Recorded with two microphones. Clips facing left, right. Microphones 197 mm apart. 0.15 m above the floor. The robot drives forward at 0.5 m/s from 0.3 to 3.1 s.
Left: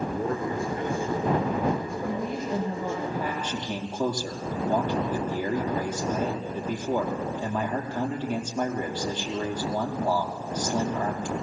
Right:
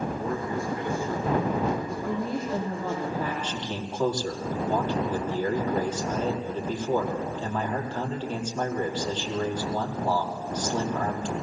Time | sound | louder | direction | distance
0.1 | a man speaking | left 1 dB | 55° left (ahead or behind) | 7.5 m
2.0 | a woman speaking | right 2 dB | 15° left (ahead or behind) | 5 m
3.4 | a man speaking | left 1 dB | 10° left (ahead or behind) | 5 m